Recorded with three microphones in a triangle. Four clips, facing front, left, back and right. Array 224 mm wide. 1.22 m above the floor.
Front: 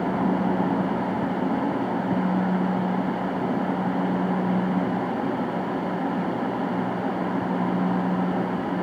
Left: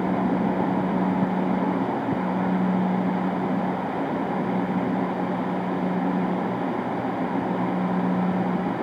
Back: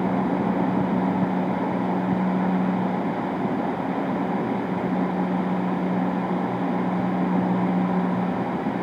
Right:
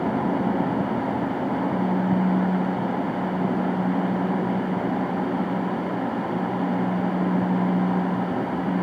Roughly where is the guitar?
I don't hear a guitar.